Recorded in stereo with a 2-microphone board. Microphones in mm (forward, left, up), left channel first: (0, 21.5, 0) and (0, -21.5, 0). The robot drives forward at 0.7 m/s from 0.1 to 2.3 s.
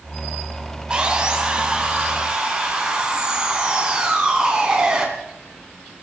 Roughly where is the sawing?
Centre.